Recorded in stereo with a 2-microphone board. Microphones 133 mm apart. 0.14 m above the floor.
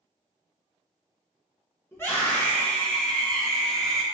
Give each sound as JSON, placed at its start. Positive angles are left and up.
{"t": 1.9, "sound": "a scream", "side_deg": 20, "distance_m": 1.3}